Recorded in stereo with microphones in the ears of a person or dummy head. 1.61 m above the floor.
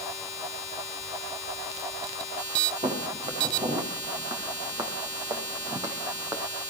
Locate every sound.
2.8 s footsteps: 25° right (ahead or behind), 6 m; by 6.4 s 15° right (ahead or behind), 4 m